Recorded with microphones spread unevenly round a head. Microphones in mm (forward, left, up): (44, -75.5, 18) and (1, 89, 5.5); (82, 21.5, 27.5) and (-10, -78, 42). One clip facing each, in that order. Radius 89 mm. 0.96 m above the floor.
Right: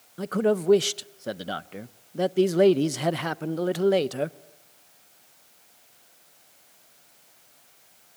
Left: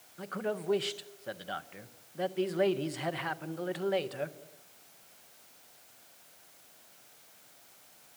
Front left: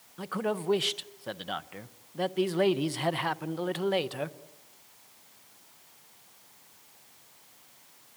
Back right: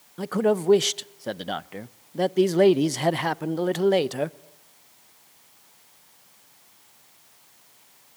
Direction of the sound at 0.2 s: 95° right.